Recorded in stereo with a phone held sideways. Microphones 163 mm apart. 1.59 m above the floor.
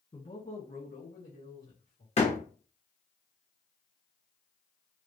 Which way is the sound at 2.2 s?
40° left (ahead or behind).